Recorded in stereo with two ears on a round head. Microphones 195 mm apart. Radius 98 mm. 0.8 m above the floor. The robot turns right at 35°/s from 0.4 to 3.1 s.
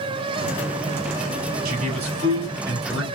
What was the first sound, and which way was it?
A man speaking, 45° right.